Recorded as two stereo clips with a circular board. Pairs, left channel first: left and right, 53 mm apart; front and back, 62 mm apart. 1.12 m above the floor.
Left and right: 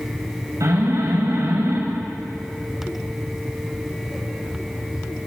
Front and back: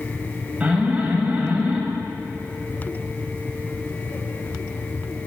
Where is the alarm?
110° right, 7 m.